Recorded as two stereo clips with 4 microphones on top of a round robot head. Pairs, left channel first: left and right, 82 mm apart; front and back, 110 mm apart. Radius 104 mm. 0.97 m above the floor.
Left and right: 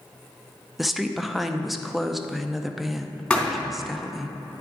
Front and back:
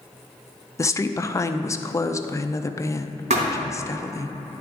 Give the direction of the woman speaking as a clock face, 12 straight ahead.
12 o'clock.